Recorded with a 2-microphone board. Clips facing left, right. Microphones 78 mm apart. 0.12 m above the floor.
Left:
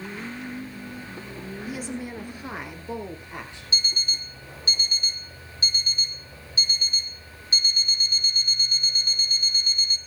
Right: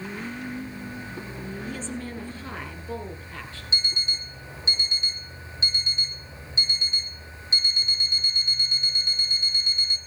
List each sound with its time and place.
1.7 s a woman speaking: 10° left (ahead or behind), 1.2 m; by 3.6 s 15° left (ahead or behind), 3 m
3.7 s an alarm clock: 25° right (ahead or behind), 0.7 m